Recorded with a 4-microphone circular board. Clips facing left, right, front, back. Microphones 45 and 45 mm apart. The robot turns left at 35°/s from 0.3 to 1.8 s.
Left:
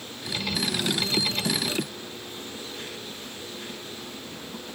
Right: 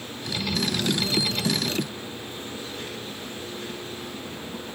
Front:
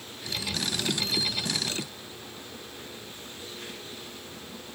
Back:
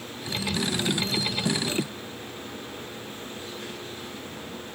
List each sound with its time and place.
Only background noise.